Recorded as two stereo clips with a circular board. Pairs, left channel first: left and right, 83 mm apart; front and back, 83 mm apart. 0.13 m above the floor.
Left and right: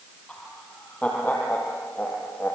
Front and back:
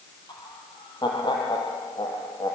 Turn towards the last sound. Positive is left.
turn(degrees=25)